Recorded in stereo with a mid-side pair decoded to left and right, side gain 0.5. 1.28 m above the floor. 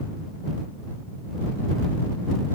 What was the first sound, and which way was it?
Only background noise.